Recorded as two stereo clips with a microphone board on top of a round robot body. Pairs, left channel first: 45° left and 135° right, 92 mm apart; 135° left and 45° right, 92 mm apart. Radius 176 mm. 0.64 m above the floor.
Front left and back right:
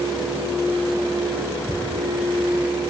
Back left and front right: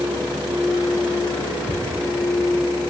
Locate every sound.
1.7 s ticking: 165° left, 2 m